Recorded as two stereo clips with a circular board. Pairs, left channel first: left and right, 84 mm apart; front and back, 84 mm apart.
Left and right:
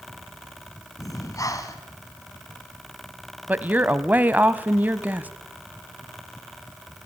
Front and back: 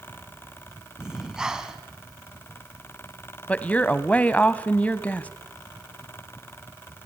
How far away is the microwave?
No microwave in this recording.